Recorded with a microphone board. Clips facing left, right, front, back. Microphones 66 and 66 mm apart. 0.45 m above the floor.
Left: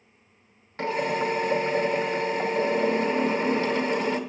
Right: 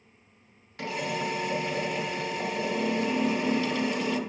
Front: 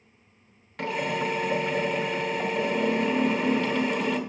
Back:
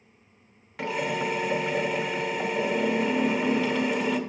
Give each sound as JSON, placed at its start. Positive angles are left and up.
{"t": 0.8, "sound": "a drill", "azimuth_deg": 95, "distance_m": 1.0}